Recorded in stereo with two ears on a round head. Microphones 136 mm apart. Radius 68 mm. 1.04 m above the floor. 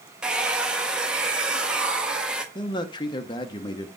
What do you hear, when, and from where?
0.2 s a hair dryer: 5° right (ahead or behind), 1.1 m
2.5 s a man speaking: 30° left (ahead or behind), 0.8 m